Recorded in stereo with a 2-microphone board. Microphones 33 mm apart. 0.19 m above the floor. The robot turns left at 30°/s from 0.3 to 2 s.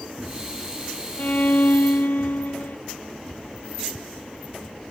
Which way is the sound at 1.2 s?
55° left (ahead or behind).